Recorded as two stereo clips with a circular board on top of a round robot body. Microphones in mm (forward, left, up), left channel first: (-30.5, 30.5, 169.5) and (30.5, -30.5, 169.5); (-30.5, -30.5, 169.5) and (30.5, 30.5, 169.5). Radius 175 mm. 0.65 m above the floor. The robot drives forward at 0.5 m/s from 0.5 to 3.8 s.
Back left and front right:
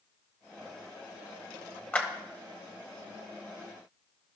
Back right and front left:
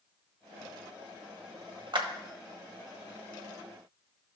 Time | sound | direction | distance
1.9 | a clap | 65° left | 1.5 m